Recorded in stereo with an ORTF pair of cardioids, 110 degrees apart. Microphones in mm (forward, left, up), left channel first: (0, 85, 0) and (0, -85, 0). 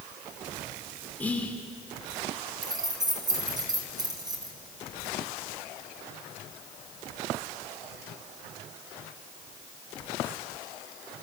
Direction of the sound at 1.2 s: 10° left.